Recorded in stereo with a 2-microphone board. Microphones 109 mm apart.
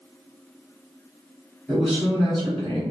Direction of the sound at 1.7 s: 10° left (ahead or behind).